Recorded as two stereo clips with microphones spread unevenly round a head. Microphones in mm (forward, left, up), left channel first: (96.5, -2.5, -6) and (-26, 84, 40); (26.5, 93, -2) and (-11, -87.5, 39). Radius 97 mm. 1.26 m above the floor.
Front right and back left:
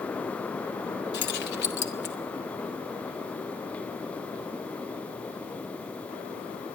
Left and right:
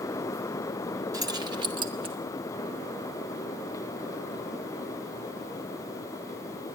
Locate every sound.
1.1 s keys jangling: 30° right, 1.8 m; by 2.1 s 40° right, 3 m